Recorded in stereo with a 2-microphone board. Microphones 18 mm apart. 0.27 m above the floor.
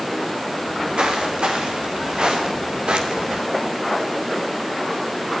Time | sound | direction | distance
0.6 | footsteps | 80° right | 5.5 m